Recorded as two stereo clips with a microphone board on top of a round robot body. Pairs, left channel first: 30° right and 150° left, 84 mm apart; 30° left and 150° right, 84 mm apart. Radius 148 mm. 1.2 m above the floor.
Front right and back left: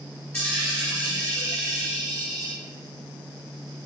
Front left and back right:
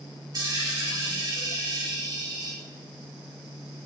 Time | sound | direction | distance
0.3 | a dropped coin | 105° right | 1.7 m